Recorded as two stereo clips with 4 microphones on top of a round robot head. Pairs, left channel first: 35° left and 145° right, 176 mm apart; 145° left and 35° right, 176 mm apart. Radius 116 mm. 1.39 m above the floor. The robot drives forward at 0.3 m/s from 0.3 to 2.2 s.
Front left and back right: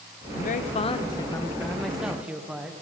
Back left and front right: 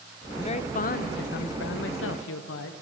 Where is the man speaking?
80° left, 0.5 m; by 2.7 s 130° left, 0.7 m.